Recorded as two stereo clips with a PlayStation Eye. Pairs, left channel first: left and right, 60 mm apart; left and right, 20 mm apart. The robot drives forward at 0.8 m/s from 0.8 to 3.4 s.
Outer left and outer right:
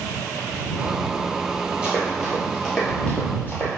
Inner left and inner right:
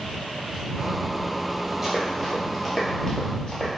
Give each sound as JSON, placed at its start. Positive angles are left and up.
{"t": 1.8, "sound": "running footsteps", "side_deg": -15, "distance_m": 1.6}